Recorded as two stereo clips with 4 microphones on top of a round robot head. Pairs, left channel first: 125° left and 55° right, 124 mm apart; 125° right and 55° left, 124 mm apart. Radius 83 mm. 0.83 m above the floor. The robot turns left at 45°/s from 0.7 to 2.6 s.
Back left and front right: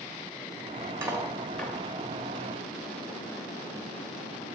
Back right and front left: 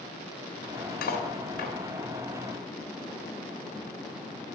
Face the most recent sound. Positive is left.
turn(degrees=160)